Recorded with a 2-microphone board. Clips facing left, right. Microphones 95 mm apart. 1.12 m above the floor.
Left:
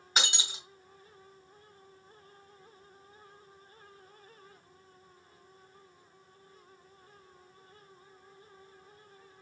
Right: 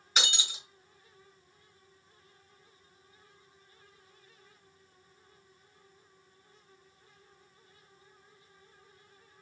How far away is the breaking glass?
About 3.5 m.